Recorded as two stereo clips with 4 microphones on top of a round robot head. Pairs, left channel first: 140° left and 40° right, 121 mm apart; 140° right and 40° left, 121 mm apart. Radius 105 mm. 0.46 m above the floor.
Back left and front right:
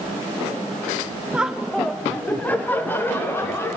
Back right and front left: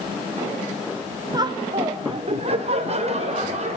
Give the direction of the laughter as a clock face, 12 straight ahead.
11 o'clock.